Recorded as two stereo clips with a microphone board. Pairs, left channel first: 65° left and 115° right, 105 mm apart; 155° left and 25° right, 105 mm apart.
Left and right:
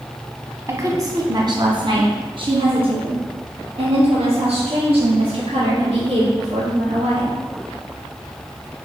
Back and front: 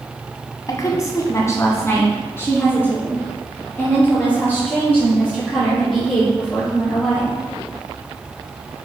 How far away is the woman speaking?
About 1.3 m.